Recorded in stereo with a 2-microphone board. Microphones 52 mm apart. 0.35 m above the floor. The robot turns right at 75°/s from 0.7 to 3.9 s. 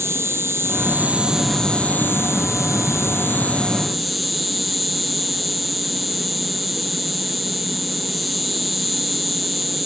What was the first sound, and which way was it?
An insect, 60° right.